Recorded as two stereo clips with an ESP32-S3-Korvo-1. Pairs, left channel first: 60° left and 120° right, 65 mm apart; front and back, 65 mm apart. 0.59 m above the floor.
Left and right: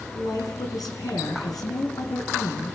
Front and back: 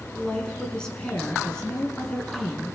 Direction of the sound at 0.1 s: 80° left.